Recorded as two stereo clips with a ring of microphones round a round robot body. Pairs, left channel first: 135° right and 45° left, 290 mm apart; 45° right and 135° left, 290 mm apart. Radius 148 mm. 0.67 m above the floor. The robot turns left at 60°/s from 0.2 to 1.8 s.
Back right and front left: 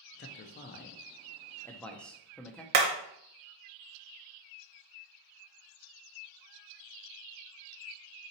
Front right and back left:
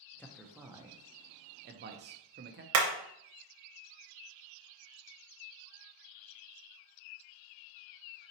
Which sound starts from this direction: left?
Hammering, at 2.7 s.